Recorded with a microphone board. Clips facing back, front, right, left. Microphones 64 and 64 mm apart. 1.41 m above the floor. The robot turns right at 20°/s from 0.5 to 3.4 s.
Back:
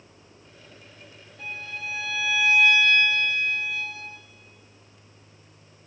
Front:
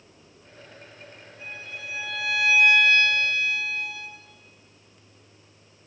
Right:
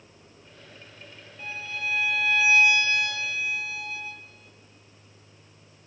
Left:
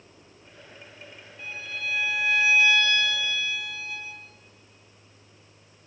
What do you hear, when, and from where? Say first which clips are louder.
1.4 s a violin: back 4 dB, right 1 dB; straight behind, 2.5 m; by 4.1 s 140° right, 2.5 m